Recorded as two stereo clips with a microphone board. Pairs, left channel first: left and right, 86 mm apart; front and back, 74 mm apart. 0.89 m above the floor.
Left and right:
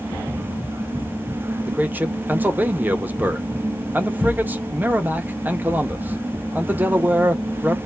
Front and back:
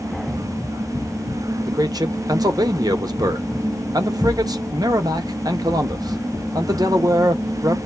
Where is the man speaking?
155° right, 0.7 m.